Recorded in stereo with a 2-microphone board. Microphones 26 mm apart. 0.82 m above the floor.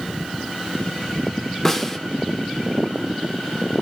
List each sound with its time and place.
1.6 s a snare drum: 15° left (ahead or behind), 0.7 m